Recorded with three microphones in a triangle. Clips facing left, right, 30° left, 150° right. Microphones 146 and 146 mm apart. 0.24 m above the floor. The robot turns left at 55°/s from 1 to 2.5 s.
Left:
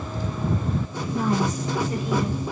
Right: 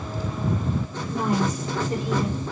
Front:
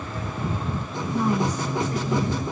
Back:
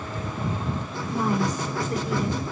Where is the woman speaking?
85° right, 1.9 m; by 2.4 s 155° right, 1.9 m.